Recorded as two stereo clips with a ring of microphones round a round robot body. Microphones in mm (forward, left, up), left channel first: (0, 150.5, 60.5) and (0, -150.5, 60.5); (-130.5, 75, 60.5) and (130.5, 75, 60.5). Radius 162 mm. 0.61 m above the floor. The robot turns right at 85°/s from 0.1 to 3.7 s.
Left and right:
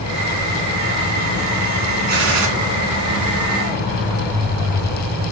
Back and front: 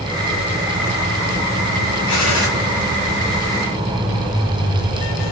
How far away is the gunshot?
About 2.5 m.